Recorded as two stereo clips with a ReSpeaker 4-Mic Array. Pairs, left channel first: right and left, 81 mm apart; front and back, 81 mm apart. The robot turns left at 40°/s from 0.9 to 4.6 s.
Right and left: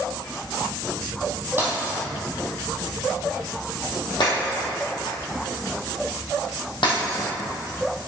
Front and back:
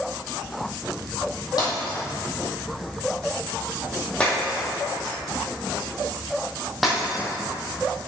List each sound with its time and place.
1.6 s breaking glass: 30° left, 3 m; by 7.3 s 90° right, 3 m